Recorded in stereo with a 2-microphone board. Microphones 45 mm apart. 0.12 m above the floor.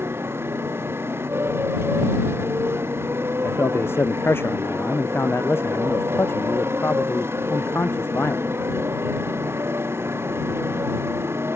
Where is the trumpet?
No trumpet in this recording.